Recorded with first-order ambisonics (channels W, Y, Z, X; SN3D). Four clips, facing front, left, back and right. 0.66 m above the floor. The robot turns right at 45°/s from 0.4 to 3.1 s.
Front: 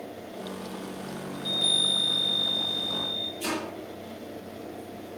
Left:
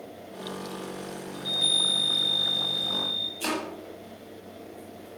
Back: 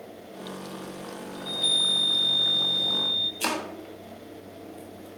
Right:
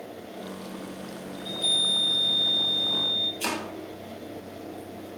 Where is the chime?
40° left, 1.8 m; by 3.3 s 120° left, 1.8 m.